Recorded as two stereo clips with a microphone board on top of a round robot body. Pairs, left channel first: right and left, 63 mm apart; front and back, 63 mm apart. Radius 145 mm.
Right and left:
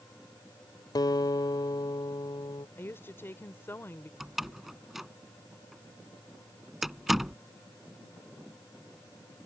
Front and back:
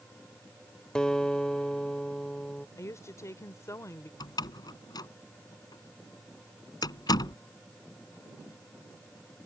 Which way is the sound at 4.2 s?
5° left.